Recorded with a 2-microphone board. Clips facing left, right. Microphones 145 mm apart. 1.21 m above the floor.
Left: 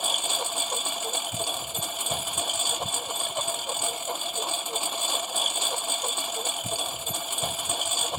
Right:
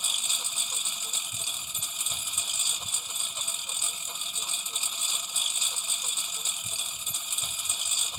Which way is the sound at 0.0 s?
70° left (ahead or behind).